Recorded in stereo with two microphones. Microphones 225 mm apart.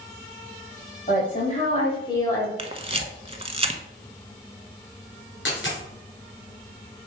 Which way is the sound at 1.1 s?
40° left (ahead or behind).